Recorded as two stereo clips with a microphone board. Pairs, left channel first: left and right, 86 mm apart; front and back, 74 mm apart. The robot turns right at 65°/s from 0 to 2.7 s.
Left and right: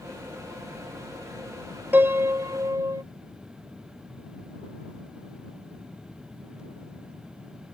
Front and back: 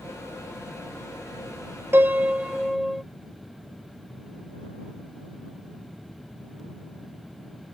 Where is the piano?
145° right; by 3.0 s 95° right.